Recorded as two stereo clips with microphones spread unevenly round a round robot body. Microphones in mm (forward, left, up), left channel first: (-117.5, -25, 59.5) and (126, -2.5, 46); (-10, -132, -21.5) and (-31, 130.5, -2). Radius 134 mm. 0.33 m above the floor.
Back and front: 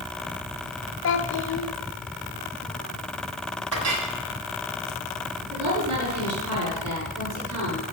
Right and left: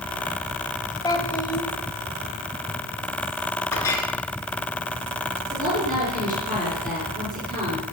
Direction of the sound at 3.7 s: 5° right.